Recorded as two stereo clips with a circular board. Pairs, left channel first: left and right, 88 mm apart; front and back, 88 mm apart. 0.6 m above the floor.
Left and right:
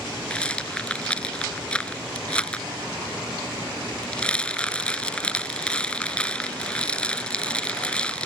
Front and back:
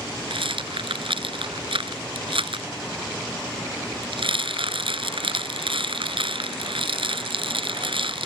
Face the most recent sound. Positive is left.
turn(degrees=170)